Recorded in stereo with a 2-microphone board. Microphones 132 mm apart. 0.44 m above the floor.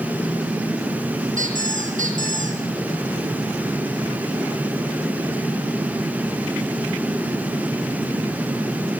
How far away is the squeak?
About 6.5 m.